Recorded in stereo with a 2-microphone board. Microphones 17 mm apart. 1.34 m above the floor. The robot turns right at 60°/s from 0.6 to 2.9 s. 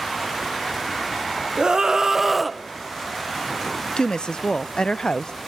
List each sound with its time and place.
1.6 s a scream: 55° right, 1.0 m; by 2.6 s 5° left, 1.0 m
4.0 s a woman speaking: 60° left (ahead or behind), 0.6 m